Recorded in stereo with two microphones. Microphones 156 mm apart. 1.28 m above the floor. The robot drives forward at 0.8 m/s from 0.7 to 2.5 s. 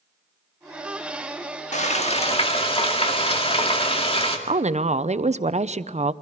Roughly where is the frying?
Left.